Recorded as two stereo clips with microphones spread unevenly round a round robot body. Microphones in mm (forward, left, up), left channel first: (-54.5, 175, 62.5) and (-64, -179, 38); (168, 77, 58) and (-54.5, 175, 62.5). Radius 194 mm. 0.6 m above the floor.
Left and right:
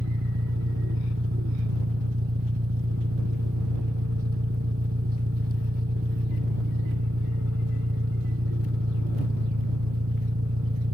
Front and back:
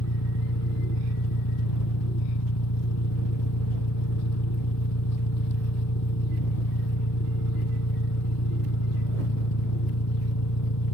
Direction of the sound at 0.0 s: 25° right.